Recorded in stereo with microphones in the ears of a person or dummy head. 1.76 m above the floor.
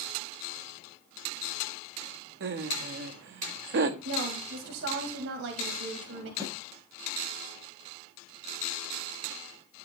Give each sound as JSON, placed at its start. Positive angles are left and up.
{"t": 2.4, "sound": "laughter", "side_deg": -45, "distance_m": 1.0}
{"t": 4.0, "sound": "a woman speaking", "side_deg": -70, "distance_m": 2.5}
{"t": 6.4, "sound": "a snare drum", "side_deg": -20, "distance_m": 9.5}